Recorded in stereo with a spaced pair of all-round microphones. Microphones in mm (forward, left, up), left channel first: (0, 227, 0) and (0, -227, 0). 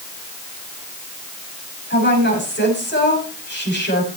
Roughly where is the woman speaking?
Left.